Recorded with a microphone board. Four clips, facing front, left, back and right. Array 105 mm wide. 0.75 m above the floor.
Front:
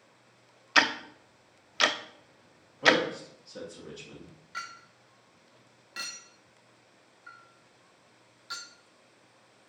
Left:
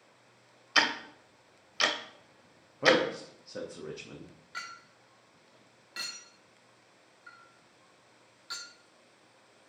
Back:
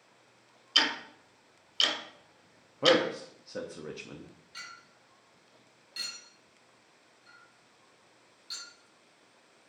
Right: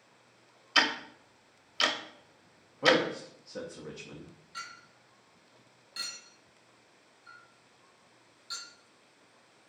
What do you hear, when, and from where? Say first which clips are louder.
0.8 s ticking: even, front 6 dB; 10° left, 0.6 m
2.8 s a man speaking: left 1 dB, even; 160° left, 0.8 m
4.5 s a clink: left 2 dB, front 9 dB; 40° left, 0.8 m